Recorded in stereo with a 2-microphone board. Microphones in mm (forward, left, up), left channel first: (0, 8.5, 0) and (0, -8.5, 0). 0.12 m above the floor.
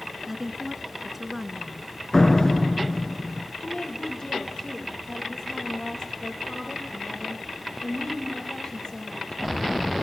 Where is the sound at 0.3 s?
15° right (ahead or behind), 1.3 m.